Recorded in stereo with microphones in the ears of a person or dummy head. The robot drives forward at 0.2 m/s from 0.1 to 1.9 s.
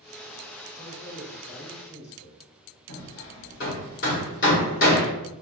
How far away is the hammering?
About 1.1 m.